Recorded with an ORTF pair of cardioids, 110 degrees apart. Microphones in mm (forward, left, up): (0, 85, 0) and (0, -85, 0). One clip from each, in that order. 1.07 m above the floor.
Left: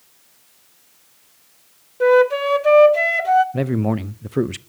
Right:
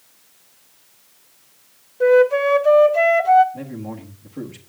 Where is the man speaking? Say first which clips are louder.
Left 11 dB; 65° left, 0.5 m.